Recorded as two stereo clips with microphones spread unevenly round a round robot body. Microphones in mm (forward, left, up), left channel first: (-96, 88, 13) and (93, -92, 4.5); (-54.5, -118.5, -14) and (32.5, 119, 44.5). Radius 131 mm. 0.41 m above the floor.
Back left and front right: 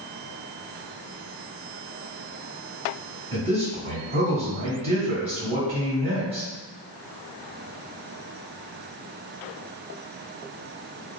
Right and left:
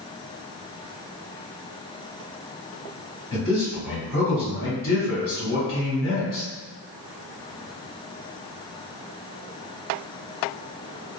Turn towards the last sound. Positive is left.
turn(degrees=-105)